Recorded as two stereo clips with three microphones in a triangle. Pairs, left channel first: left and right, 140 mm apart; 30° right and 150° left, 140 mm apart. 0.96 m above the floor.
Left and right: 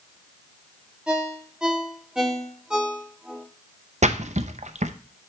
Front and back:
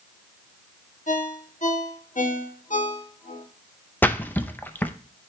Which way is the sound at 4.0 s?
105° right.